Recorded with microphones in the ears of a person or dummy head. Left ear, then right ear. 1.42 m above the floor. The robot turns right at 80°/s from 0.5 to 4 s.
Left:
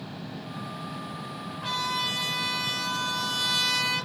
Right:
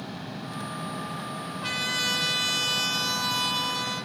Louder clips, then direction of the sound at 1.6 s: Right 1 dB; 140° right.